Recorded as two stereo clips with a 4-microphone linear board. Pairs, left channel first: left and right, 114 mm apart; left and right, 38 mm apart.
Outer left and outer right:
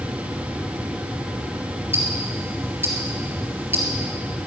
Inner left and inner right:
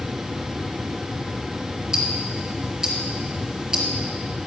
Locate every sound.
1.9 s ticking: 20° right (ahead or behind), 1.9 m